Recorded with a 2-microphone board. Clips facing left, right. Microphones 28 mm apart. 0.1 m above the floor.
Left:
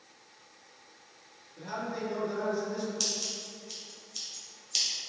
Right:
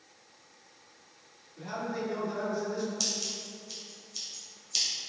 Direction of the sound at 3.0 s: 15° left (ahead or behind).